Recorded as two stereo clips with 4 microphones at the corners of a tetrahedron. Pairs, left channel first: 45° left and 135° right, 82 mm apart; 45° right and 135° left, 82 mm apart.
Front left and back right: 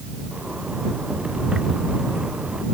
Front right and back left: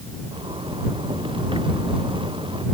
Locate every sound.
0.3 s a zipper: 145° left